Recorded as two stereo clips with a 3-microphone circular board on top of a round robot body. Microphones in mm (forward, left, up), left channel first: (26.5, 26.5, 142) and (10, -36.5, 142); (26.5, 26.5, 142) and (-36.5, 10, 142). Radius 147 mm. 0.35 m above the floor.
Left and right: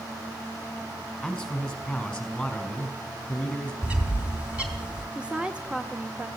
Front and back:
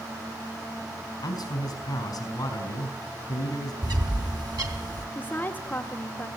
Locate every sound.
1.2 s a man speaking: 10° right, 5 m
3.8 s a bird: straight behind, 4 m
5.2 s a woman speaking: 40° right, 1.7 m